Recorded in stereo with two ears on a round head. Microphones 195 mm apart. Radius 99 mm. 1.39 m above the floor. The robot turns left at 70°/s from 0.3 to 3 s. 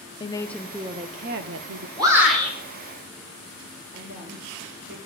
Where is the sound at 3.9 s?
50° right (ahead or behind), 2.5 m.